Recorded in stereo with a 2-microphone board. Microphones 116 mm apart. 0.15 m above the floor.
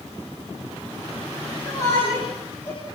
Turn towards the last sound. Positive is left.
turn(degrees=30)  # may be behind; listen again after turning